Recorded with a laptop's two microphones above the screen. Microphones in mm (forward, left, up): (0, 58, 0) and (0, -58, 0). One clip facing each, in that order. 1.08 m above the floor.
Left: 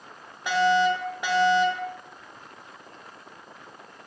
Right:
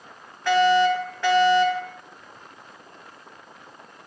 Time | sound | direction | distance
0.5 | a fire alarm | 15° left (ahead or behind) | 2.5 m